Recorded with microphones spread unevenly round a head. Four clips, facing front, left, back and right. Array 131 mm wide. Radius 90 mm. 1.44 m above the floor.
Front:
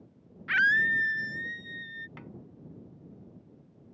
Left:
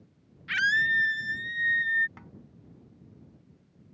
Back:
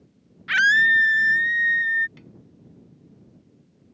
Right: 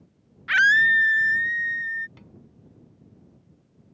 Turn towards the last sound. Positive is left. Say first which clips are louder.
# left 1 dB, front 2 dB
turn(degrees=60)